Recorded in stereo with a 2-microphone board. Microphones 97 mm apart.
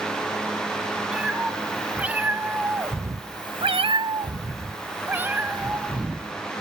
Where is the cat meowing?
10° right (ahead or behind), 3 m.